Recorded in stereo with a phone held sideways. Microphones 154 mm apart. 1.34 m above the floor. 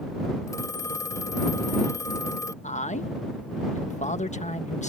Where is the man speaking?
55° left (ahead or behind).